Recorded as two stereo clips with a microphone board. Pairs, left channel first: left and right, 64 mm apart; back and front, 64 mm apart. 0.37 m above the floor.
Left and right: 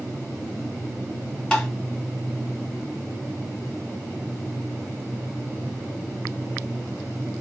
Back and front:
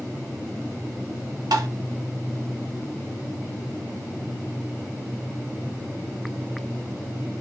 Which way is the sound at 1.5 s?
15° left.